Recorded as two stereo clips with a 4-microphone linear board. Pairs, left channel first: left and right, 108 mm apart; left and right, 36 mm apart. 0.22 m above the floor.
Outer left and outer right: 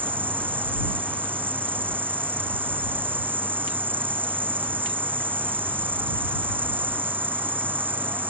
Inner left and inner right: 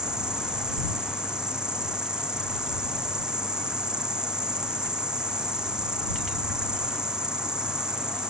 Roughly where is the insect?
Centre.